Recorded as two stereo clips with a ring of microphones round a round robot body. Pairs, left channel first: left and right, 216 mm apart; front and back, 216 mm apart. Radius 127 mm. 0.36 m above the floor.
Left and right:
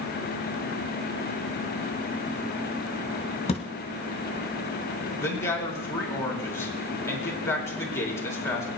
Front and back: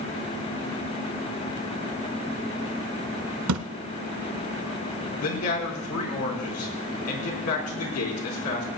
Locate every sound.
3.5 s a thud: 155° left, 0.9 m
5.2 s a man speaking: 10° left, 4 m